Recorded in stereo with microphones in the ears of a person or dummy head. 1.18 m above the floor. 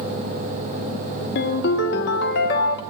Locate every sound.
1.4 s a ringtone: 55° left (ahead or behind), 1.1 m